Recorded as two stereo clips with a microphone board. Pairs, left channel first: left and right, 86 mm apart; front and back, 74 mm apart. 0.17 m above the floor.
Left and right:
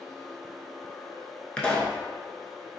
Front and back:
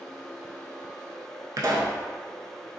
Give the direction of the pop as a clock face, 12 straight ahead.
7 o'clock.